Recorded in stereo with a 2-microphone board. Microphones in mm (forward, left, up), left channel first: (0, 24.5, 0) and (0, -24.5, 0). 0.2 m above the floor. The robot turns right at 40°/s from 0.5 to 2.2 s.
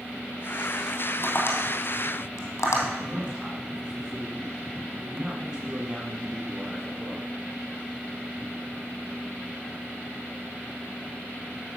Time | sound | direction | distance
1.2 | tapping | 45° left (ahead or behind) | 3 m
3.0 | a man speaking | 20° right (ahead or behind) | 2 m